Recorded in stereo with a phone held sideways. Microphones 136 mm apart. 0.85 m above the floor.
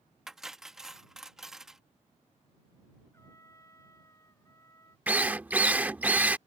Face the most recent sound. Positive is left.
turn(degrees=-10)  # may be behind; listen again after turning